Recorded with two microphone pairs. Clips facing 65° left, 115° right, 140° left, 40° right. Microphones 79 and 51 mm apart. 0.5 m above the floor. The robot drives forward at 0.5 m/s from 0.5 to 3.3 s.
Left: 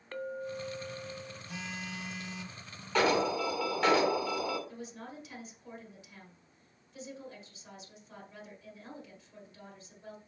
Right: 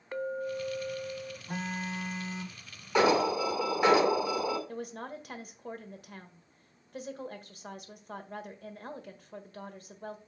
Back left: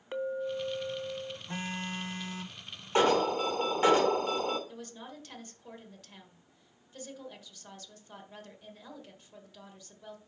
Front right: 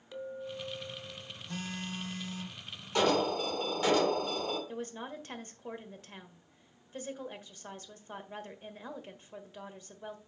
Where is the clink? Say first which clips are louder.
Right 4 dB, back left 7 dB; 170° left, 0.6 m; by 1.4 s 175° left, 0.9 m.